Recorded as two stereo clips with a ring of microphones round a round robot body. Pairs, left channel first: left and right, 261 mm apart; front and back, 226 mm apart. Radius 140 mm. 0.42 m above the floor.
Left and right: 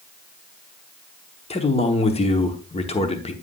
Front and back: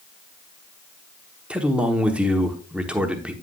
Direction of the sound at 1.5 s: 100° left.